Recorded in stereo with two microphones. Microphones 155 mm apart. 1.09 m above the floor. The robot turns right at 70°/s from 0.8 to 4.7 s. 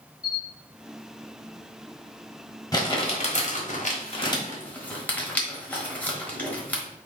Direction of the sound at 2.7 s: 25° left (ahead or behind).